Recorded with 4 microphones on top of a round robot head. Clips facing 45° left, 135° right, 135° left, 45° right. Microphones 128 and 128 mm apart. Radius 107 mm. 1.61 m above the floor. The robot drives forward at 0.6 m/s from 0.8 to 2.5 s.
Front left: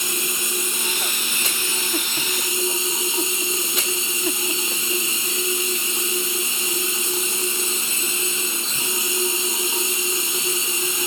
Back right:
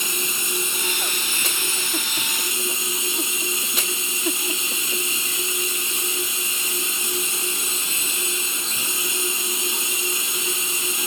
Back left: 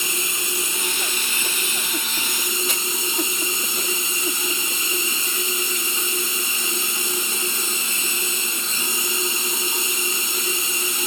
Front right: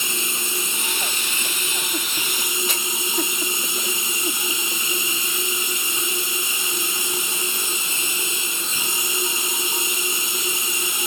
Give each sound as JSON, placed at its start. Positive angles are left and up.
{"t": 0.0, "sound": "running water", "azimuth_deg": 15, "distance_m": 3.0}